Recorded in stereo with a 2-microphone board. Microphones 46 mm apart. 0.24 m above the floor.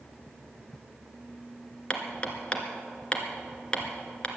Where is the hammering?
25° left (ahead or behind), 1.7 m.